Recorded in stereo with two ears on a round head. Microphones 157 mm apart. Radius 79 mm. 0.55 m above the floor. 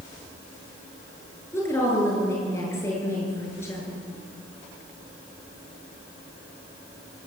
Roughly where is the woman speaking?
Centre.